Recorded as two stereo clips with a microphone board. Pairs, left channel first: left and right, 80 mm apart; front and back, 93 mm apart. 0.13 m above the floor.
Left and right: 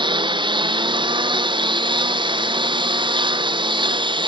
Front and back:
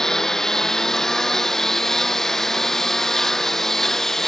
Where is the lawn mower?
85° right.